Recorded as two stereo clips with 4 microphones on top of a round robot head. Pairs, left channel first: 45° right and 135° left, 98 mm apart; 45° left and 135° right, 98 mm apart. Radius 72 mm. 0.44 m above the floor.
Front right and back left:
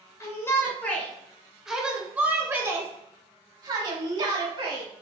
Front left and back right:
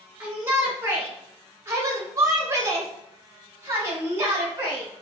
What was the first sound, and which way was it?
A shout, 75° right.